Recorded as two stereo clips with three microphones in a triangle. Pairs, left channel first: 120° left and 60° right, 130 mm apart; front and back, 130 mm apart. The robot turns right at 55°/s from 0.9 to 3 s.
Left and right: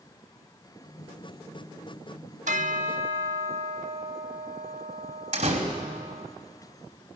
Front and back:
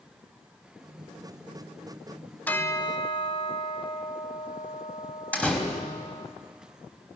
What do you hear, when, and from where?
2.5 s a bell: 80° right, 0.9 m; by 6.3 s 50° right, 0.9 m
5.3 s a door slam: 80° right, 3.5 m